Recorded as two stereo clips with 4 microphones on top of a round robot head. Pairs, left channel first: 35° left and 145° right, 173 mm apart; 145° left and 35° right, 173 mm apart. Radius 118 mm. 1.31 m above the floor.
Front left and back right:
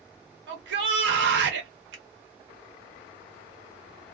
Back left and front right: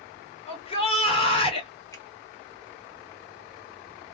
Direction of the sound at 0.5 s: 155° right.